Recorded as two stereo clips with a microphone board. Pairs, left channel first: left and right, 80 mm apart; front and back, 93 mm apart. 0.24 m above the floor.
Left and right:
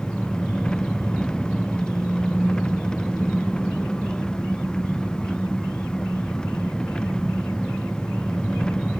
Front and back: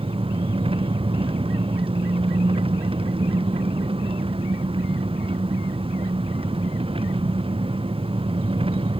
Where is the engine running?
170° left.